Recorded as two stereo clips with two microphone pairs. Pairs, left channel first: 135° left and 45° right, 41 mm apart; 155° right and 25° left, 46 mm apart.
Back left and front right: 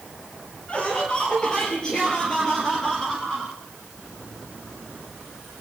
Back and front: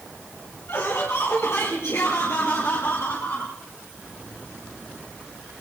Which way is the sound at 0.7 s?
165° right.